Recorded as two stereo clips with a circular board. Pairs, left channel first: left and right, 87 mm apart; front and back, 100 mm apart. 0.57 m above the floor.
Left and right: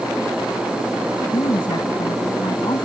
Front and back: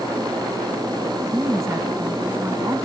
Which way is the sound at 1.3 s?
120° left.